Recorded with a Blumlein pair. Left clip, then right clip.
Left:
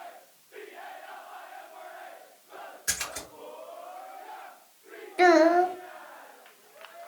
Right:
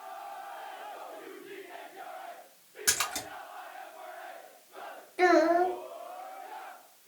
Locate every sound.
2.9 s a splash: 55° right, 1.9 m
5.2 s a child speaking: 20° left, 0.6 m